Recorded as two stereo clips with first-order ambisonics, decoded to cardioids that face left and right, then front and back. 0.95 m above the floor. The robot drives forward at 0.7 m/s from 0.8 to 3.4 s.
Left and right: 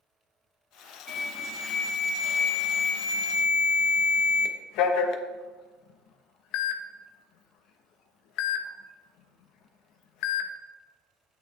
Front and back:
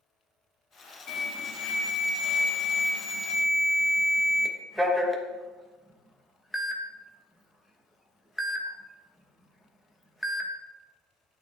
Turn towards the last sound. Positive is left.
turn(degrees=90)